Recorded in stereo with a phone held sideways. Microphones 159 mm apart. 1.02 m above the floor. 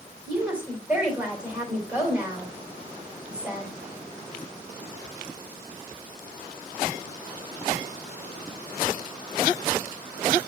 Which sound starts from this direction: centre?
A woman speaking, at 0.3 s.